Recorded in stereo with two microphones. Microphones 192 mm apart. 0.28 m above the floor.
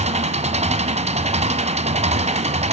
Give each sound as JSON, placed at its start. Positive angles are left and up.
{"t": 0.0, "sound": "an engine running", "side_deg": -35, "distance_m": 1.5}